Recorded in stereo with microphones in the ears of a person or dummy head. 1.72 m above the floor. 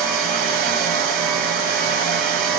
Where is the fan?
55° right (ahead or behind), 1.9 m.